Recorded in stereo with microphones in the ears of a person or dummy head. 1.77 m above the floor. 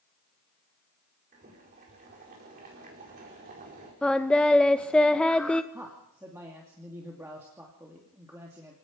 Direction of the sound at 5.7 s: 15° right (ahead or behind).